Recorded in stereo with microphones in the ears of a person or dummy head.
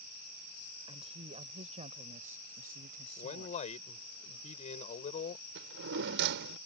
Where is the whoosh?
No whoosh in this recording.